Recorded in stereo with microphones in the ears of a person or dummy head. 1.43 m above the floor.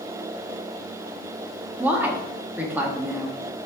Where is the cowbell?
I don't hear a cowbell.